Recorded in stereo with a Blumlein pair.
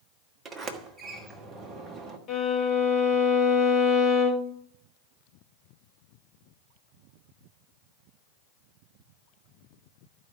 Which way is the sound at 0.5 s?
15° right.